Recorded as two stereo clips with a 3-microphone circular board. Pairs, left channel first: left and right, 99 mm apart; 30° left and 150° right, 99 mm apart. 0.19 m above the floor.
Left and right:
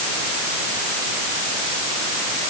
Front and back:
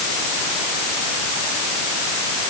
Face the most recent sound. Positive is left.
No sound to turn to.